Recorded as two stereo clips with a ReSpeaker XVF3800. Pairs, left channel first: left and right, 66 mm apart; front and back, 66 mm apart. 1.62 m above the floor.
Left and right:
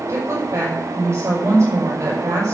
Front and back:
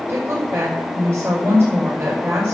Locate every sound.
0.1 s a woman speaking: 130° right, 5.5 m